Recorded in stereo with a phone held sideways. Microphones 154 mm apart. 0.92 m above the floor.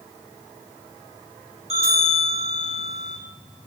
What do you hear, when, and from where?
1.7 s a bell: 45° right (ahead or behind), 1.4 m